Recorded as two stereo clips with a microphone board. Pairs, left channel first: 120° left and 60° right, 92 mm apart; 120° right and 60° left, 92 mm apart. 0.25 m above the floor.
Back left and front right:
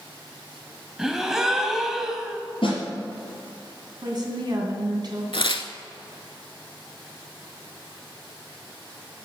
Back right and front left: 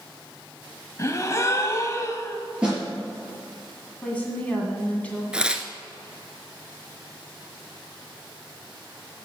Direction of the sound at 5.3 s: 140° left.